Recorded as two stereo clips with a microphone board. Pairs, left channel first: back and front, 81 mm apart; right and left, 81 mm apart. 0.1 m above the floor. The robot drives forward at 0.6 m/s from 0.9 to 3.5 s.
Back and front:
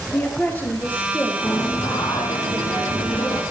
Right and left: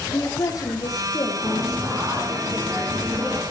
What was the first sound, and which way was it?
A woman speaking, 115° right.